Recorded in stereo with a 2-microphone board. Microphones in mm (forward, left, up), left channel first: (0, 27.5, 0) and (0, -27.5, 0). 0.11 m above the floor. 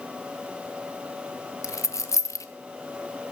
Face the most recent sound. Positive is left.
turn(degrees=70)  # may be behind; listen again after turning